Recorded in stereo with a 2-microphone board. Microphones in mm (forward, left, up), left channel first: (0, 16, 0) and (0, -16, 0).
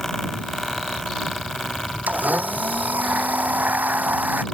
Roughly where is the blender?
Right.